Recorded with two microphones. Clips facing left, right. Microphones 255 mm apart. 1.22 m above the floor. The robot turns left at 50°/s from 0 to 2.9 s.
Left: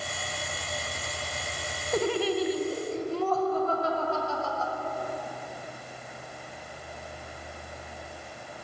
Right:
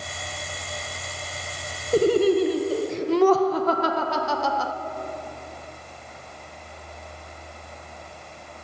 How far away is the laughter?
About 0.7 m.